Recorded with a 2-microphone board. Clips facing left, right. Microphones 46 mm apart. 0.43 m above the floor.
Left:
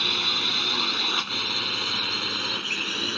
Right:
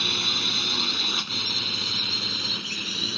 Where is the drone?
10° left (ahead or behind); by 3.2 s 35° left (ahead or behind).